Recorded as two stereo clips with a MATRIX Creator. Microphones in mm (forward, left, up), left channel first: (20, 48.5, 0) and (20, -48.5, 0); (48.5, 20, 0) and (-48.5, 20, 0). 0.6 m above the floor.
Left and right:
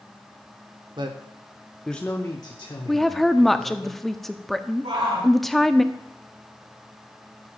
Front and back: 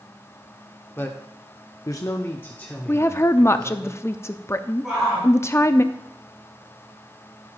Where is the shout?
95° right, 6.5 m.